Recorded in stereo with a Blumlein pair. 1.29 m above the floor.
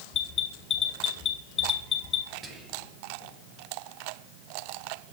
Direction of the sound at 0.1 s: 25° left.